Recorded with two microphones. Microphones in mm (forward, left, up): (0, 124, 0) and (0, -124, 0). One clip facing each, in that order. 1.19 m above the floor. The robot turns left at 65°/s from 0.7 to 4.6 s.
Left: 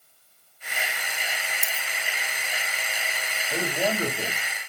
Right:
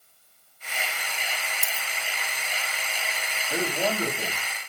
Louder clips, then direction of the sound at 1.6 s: Even; 5° left (ahead or behind).